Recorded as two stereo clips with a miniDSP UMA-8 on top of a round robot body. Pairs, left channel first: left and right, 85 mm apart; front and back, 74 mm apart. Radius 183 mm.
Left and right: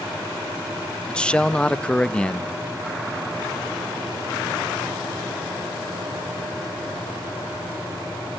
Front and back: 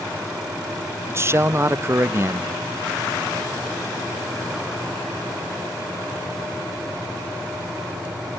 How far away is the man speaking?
About 0.8 m.